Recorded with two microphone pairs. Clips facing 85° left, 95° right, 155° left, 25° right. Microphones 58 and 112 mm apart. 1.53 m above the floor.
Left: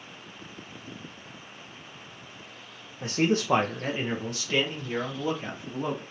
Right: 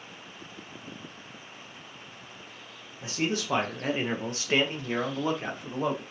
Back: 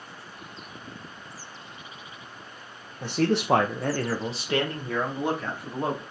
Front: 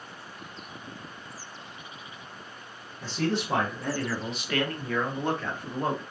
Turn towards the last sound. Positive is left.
turn(degrees=-120)